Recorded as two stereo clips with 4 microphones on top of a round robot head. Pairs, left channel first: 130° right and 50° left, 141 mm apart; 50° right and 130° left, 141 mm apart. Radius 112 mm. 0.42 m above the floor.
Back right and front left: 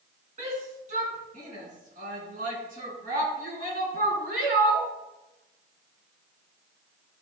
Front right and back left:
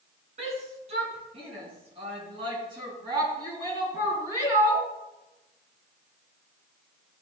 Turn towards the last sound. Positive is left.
turn(degrees=60)